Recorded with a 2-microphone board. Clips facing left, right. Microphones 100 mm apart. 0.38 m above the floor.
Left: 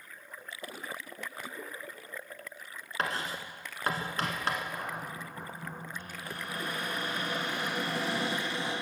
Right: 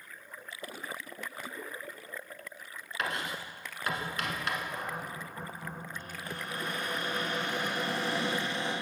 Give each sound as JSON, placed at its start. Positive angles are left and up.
{"t": 3.0, "sound": "writing", "side_deg": 35, "distance_m": 1.0}
{"t": 4.7, "sound": "a cupboard door", "side_deg": 5, "distance_m": 3.5}